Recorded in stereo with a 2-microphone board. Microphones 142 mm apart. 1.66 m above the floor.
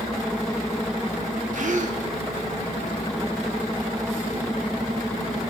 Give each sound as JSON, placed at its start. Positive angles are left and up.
{"t": 1.5, "sound": "a gasp", "side_deg": -65, "distance_m": 1.1}